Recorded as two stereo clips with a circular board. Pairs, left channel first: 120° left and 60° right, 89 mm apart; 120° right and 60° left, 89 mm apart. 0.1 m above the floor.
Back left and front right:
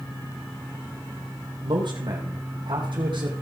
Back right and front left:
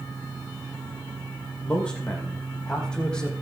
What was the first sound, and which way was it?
A man speaking, 40° right.